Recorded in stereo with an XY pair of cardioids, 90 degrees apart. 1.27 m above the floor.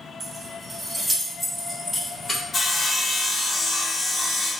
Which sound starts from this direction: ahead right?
Keys jangling, at 0.2 s.